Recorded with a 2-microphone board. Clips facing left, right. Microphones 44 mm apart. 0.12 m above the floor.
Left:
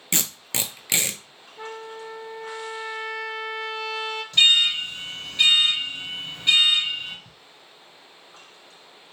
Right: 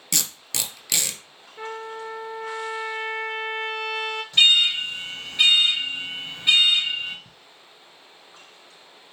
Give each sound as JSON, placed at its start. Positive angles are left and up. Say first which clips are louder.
{"t": 0.1, "sound": "tape being pulled", "louder": "left 2 dB", "side_deg": 30, "distance_m": 0.6}
{"t": 1.6, "sound": "a trumpet", "louder": "right 3 dB", "side_deg": -45, "distance_m": 0.9}
{"t": 4.3, "sound": "an alarm", "louder": "right 1 dB", "side_deg": -15, "distance_m": 2.5}
{"t": 7.2, "sound": "ticking", "louder": "even", "side_deg": -35, "distance_m": 0.5}